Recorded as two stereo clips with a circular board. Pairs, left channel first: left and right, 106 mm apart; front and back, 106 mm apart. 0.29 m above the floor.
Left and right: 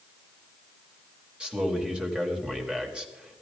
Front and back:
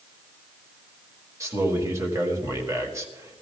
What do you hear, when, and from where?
1.4 s a man speaking: 160° right, 1.7 m